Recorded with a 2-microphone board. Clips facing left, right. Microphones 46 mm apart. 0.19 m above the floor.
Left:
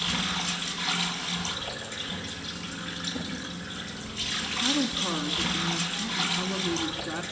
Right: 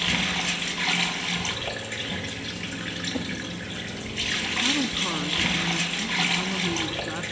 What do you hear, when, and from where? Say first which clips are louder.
0.0 s running water: right 4 dB; 40° right (ahead or behind), 2 m
3.1 s a drawer: right 4 dB; 55° right (ahead or behind), 8.5 m
4.4 s a woman speaking: right 1 dB; 5° right (ahead or behind), 2 m